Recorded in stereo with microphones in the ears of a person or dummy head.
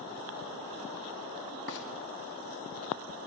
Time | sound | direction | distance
1.7 | frying | 60° left (ahead or behind) | 1.2 m